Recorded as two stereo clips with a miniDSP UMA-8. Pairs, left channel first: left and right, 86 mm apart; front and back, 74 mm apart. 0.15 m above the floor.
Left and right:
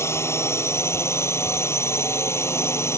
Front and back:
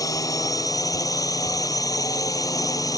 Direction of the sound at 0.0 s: 35° left.